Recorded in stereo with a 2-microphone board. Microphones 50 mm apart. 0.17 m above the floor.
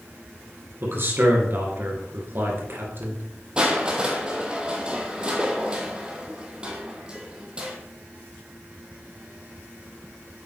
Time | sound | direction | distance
0.8 | a man speaking | 45° right (ahead or behind) | 2.5 m
3.6 | crushing | 20° right (ahead or behind) | 1.8 m